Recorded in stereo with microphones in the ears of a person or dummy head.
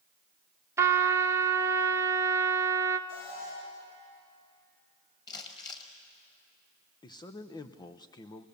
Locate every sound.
0.8 s a trumpet: 20° right (ahead or behind), 0.8 m
3.1 s an alarm: 85° left, 9 m
5.3 s crumpling: 25° left (ahead or behind), 2.0 m
7.0 s a man speaking: 25° left (ahead or behind), 0.7 m